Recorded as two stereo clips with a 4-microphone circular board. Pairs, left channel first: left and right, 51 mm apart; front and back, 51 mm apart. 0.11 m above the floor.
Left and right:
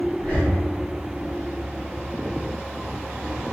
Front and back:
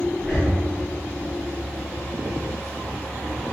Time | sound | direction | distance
0.2 | breathing | 80° left | 1.3 m